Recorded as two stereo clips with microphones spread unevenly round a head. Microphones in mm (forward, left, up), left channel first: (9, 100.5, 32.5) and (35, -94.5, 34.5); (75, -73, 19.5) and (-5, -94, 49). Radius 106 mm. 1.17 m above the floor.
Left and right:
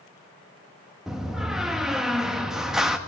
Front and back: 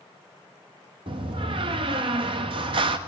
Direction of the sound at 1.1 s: 170° right.